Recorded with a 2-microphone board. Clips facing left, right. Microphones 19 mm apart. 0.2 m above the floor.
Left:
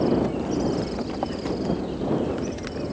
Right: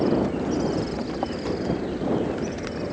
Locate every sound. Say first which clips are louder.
0.0 s an aircraft: even; 45° right (ahead or behind); by 2.9 s 55° right (ahead or behind)